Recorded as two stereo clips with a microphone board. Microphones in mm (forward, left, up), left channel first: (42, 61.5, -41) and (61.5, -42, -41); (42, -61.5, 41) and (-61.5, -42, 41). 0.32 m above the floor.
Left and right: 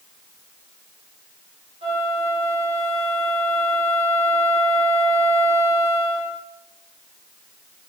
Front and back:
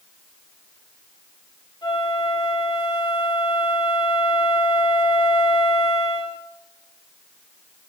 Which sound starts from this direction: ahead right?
A flute, at 1.8 s.